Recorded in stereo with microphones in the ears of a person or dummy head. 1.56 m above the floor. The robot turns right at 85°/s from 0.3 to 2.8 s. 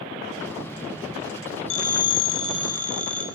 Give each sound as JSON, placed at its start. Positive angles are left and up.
{"t": 1.7, "sound": "a phone ringing", "azimuth_deg": 80, "distance_m": 3.5}